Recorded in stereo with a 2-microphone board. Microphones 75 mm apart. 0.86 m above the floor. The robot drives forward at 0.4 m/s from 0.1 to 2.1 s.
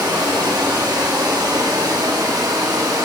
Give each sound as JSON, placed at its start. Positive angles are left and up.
{"t": 0.0, "sound": "running water", "side_deg": -65, "distance_m": 1.5}